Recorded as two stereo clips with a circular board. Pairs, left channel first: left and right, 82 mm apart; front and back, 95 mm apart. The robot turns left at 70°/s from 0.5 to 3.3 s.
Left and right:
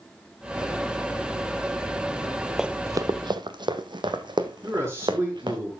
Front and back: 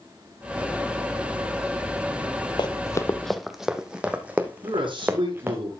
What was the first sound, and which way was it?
Running footsteps, 10° right.